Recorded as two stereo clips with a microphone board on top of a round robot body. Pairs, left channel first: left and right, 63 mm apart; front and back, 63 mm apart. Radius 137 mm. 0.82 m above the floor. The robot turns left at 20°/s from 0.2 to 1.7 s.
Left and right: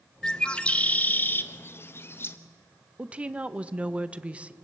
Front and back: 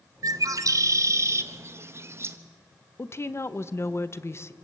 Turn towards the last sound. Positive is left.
turn(degrees=-25)